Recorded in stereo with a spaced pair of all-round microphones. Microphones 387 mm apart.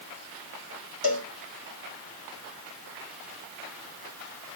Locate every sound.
1.0 s a cowbell: 65° left (ahead or behind), 1.1 m